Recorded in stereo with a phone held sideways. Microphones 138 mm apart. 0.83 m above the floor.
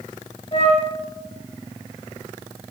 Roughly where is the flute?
Left.